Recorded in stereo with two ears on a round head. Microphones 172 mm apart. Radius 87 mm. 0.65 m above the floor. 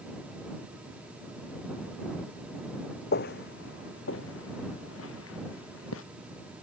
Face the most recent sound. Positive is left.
turn(degrees=80)